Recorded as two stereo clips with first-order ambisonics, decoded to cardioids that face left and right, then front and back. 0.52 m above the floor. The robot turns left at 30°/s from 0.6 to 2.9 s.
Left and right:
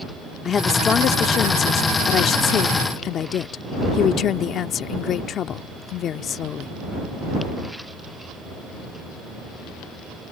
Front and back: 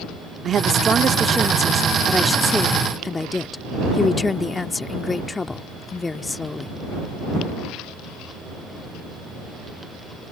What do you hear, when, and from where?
0.5 s a woman speaking: 140° left; by 6.8 s 70° left